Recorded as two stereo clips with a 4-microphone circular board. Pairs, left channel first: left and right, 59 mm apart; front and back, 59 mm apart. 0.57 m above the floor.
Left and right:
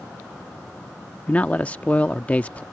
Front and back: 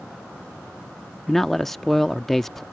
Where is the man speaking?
80° left.